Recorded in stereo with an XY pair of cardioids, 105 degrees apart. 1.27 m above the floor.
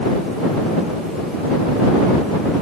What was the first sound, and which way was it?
Only background noise.